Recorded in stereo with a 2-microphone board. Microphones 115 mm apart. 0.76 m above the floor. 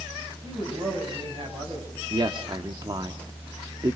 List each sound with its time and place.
0.4 s a man speaking: 45° right (ahead or behind), 5.5 m
2.1 s a man speaking: 40° right (ahead or behind), 1.1 m